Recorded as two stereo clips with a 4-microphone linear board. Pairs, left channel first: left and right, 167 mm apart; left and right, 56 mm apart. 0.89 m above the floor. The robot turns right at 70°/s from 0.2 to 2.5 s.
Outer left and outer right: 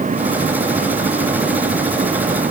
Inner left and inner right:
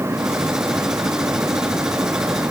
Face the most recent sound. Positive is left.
No sound to turn to.